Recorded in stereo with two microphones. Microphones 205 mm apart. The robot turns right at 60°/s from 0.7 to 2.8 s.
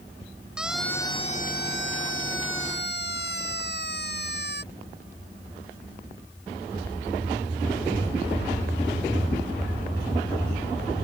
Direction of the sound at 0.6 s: 5° right (ahead or behind).